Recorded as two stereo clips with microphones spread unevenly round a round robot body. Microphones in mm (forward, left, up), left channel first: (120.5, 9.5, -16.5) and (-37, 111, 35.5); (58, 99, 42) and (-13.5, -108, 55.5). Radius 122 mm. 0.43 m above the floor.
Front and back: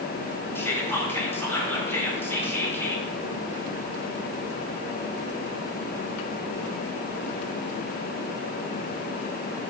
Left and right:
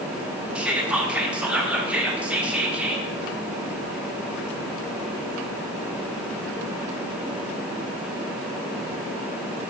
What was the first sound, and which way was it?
Whispering, 25° right.